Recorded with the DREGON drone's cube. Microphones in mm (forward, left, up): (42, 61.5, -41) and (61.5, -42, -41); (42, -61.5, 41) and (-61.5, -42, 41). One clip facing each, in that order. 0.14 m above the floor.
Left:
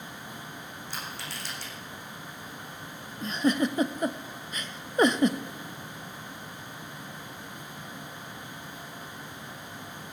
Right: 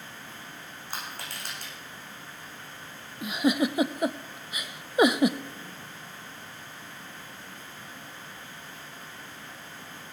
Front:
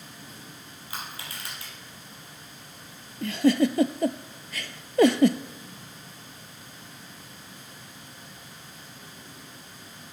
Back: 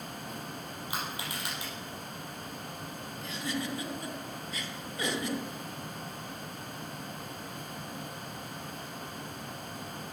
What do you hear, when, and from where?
0.9 s crushing: 120° right, 6 m
3.2 s a giggle: straight ahead, 0.6 m